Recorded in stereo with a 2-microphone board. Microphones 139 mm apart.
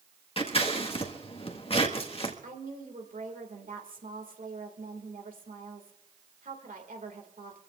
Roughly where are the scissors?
Left.